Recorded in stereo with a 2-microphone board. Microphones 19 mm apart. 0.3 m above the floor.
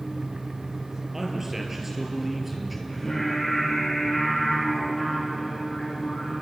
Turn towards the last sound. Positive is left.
turn(degrees=15)  # may be behind; listen again after turning